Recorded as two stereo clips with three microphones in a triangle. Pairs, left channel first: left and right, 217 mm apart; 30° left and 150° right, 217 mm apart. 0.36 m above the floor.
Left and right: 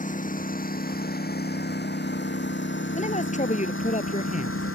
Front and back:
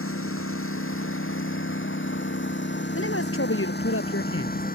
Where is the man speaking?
35° left.